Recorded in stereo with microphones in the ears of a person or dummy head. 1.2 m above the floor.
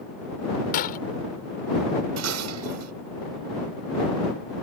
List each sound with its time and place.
0.7 s breaking glass: 35° left (ahead or behind)
2.2 s dishes clattering: 80° right